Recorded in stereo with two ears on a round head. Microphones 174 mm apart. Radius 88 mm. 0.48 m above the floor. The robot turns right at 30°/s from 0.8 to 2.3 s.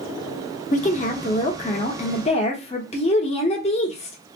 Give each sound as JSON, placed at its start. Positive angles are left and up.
{"t": 0.7, "sound": "a woman speaking", "azimuth_deg": 75, "distance_m": 0.9}